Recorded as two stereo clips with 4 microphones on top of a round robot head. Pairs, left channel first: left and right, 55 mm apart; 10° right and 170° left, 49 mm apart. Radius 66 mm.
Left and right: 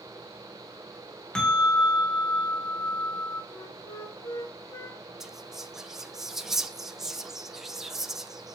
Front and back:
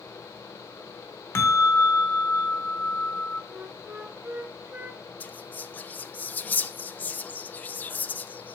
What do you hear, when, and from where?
1.4 s a bell: 15° left, 1.2 m
3.5 s a flute: 115° left, 1.1 m
5.2 s whispering: 15° right, 0.8 m